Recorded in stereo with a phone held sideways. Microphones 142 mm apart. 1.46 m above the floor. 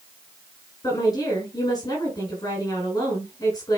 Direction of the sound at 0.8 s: 25° left (ahead or behind).